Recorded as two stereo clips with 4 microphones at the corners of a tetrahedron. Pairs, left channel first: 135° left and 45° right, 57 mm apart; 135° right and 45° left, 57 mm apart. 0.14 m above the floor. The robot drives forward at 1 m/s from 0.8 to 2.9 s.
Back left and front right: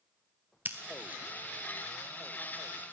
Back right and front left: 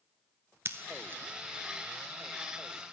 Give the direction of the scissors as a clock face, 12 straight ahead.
12 o'clock.